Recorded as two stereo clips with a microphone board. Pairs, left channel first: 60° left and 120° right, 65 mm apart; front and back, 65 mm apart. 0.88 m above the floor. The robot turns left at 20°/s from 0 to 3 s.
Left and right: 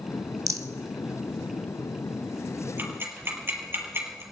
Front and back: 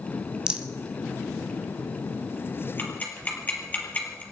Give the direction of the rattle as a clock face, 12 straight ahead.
4 o'clock.